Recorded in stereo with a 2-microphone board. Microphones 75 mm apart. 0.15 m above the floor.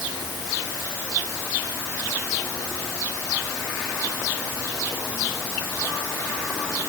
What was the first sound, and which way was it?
Only background noise.